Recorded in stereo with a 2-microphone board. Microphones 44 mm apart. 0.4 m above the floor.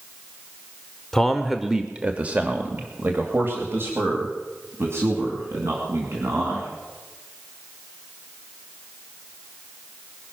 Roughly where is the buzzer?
I don't hear a buzzer.